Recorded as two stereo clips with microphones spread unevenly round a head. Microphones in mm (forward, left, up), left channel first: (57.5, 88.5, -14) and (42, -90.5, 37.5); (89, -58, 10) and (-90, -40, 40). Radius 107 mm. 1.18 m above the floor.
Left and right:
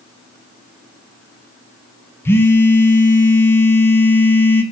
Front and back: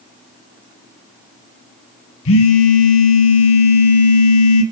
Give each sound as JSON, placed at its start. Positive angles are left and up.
{"t": 2.2, "sound": "a phone buzzing", "azimuth_deg": 5, "distance_m": 1.3}